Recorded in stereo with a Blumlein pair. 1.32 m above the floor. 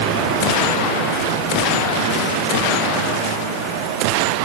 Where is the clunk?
No clunk in this recording.